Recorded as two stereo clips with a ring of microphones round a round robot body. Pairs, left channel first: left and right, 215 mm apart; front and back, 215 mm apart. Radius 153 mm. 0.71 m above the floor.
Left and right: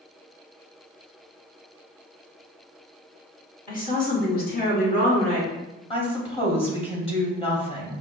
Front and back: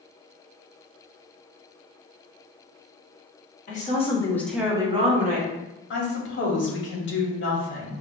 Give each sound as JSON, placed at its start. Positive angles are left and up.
{"t": 3.7, "sound": "a woman speaking", "azimuth_deg": 45, "distance_m": 1.6}
{"t": 5.9, "sound": "a woman speaking", "azimuth_deg": 25, "distance_m": 1.5}